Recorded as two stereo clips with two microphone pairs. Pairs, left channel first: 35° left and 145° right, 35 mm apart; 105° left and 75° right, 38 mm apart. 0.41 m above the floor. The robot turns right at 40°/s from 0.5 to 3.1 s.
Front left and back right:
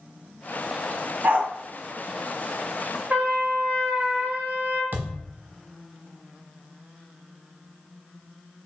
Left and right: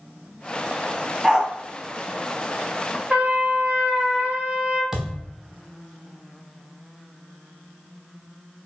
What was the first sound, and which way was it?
A dog barking, 155° right.